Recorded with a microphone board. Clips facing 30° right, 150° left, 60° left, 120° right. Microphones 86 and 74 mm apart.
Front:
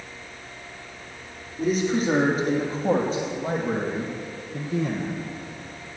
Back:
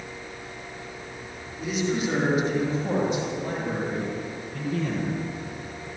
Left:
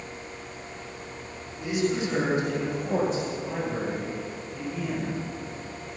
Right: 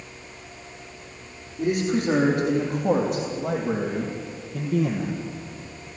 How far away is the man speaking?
About 7.5 m.